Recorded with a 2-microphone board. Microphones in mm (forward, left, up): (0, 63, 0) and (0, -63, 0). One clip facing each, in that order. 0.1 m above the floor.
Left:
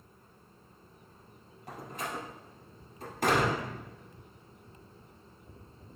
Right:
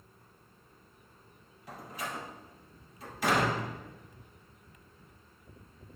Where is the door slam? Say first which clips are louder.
Left 1 dB; 50° left (ahead or behind), 2.5 m.